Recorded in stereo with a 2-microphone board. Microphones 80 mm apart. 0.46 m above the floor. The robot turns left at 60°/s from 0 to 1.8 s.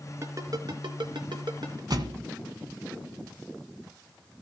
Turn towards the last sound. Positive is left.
turn(degrees=-60)  # may be behind; listen again after turning